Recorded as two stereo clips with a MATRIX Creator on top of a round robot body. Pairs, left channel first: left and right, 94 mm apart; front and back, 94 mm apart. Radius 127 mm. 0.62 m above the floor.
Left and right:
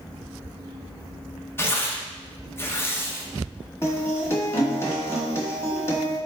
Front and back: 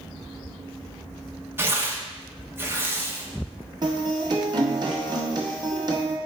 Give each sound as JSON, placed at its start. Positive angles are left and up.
{"t": 1.6, "sound": "tearing paper", "azimuth_deg": 135, "distance_m": 0.9}
{"t": 3.8, "sound": "a guitar", "azimuth_deg": 150, "distance_m": 1.5}